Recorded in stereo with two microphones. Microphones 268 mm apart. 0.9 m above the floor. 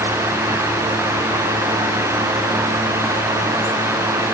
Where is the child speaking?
No child speaking in this recording.